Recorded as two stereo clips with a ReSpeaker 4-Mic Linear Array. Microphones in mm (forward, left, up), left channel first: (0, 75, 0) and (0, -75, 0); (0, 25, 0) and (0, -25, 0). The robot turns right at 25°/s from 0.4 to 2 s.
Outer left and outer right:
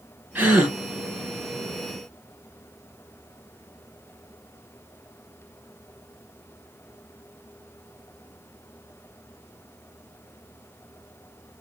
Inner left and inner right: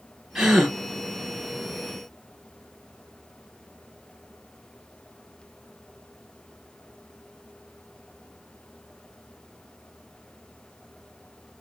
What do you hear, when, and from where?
0.3 s a gasp: 10° right (ahead or behind), 1.3 m; by 0.8 s centre (ahead or behind), 1.3 m